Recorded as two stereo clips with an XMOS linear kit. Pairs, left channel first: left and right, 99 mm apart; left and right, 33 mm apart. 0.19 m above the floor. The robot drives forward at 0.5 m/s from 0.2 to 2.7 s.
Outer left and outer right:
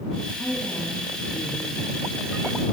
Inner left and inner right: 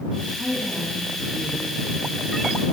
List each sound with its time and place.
0.4 s a woman speaking: 10° left (ahead or behind), 1.7 m; by 2.5 s 5° left (ahead or behind), 2.5 m